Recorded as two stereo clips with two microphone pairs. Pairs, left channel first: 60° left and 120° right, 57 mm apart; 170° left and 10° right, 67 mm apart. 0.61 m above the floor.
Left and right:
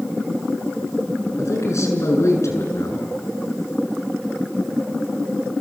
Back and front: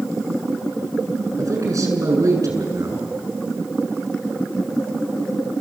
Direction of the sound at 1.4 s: 30° left.